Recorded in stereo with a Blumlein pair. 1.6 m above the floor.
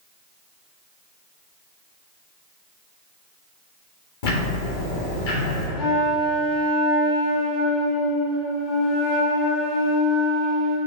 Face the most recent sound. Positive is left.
turn(degrees=45)